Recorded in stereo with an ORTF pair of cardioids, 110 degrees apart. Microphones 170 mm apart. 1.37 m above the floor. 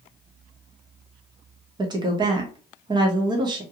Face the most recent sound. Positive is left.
turn(degrees=-25)